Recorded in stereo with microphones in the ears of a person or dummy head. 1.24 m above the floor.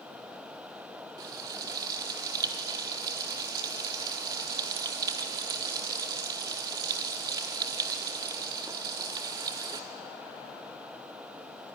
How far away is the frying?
About 1.0 m.